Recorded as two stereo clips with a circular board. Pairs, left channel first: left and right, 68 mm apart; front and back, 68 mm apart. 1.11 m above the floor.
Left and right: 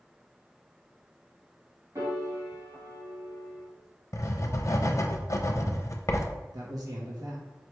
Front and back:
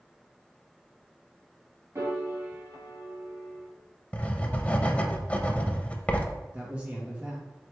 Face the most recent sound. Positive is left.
turn(degrees=-110)